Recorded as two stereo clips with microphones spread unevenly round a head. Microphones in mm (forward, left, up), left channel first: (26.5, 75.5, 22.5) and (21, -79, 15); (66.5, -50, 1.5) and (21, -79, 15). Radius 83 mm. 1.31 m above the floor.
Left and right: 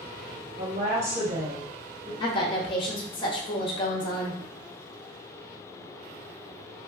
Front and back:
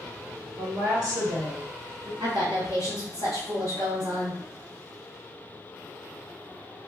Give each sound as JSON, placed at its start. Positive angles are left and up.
{"t": 0.6, "sound": "a woman speaking", "azimuth_deg": -130, "distance_m": 1.8}
{"t": 2.2, "sound": "a woman speaking", "azimuth_deg": 150, "distance_m": 0.7}